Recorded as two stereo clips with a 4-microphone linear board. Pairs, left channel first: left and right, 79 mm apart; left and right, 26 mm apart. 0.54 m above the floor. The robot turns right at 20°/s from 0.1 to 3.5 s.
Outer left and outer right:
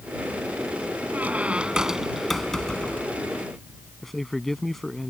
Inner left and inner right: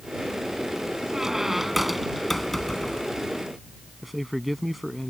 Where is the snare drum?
I don't hear a snare drum.